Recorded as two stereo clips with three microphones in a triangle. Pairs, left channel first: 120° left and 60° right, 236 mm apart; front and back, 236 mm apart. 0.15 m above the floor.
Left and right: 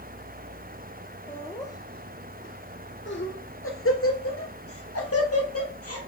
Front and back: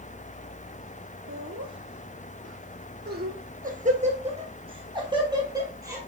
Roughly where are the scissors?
No scissors in this recording.